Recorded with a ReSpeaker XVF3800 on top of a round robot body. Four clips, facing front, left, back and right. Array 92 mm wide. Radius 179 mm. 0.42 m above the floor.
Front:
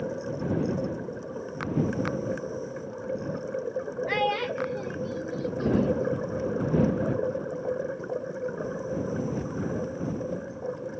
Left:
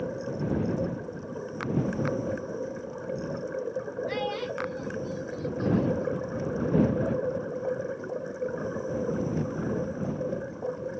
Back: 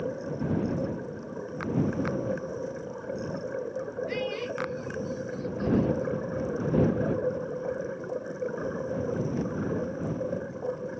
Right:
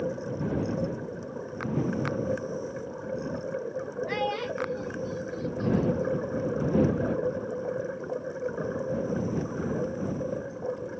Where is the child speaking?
15° right; by 6.1 s 5° left.